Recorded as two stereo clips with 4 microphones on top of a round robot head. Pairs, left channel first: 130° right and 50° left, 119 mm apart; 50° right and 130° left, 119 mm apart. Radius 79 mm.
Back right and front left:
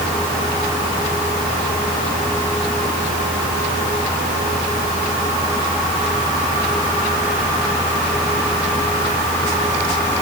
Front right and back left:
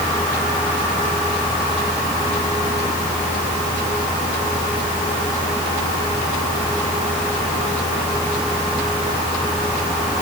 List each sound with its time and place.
Only background noise.